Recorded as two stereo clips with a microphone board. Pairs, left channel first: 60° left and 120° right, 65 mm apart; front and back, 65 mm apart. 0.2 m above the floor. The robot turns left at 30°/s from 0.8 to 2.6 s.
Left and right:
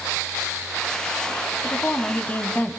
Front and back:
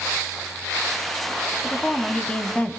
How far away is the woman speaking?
About 1.1 m.